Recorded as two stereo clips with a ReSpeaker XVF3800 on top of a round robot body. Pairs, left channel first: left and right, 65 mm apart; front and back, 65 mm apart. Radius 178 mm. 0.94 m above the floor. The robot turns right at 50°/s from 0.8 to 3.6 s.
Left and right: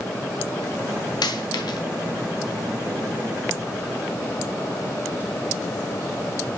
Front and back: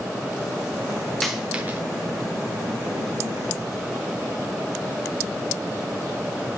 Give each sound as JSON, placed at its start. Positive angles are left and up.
{"t": 1.2, "sound": "a dropped coin", "azimuth_deg": 85, "distance_m": 1.0}